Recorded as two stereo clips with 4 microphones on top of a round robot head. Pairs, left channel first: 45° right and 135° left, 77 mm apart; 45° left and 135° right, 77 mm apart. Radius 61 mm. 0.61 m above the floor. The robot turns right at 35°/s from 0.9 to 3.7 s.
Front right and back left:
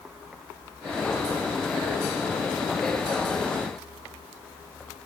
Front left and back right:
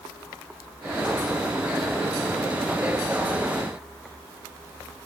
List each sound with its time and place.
Only background noise.